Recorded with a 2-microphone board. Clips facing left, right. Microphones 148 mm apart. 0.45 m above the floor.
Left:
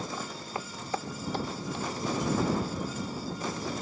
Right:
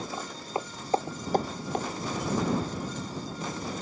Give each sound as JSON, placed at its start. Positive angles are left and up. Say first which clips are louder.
{"t": 0.1, "sound": "footsteps", "louder": "right 3 dB", "side_deg": -20}